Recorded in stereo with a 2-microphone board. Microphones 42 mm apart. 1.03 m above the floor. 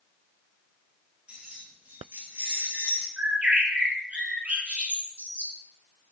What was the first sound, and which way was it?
Keys jangling, 25° right (ahead or behind).